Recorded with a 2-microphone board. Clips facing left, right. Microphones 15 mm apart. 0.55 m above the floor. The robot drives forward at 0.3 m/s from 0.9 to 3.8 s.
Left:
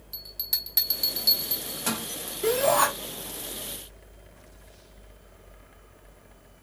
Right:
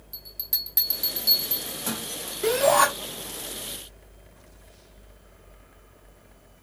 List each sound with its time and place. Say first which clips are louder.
0.1 s a bell: left 1 dB; 20° left (ahead or behind), 1.0 m; by 2.1 s 25° left (ahead or behind), 0.8 m
2.4 s a shout: right 3 dB; 20° right (ahead or behind), 0.9 m; by 2.9 s 25° right (ahead or behind), 0.9 m